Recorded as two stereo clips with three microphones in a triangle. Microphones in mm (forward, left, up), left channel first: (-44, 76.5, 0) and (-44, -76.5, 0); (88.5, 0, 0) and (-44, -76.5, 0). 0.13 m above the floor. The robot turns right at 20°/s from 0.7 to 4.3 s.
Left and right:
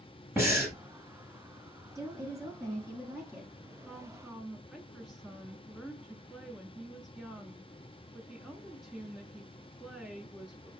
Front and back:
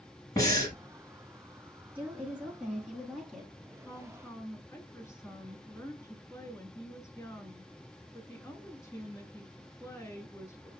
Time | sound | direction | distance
0.4 | breathing | 25° right | 1.5 m
1.9 | a woman speaking | 90° right | 1.2 m
3.9 | a woman speaking | 10° right | 1.1 m